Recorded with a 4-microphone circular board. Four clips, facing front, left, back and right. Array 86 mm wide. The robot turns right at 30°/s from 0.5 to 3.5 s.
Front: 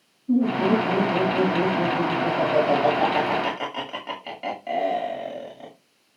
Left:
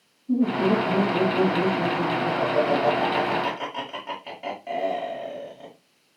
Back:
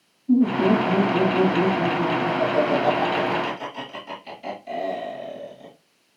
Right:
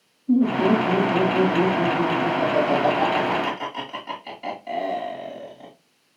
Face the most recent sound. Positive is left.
turn(degrees=15)